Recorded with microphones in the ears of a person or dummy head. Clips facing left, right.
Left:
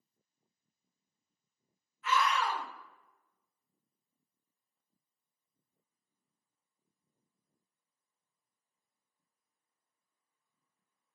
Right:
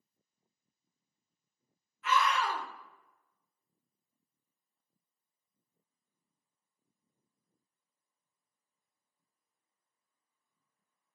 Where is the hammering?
No hammering in this recording.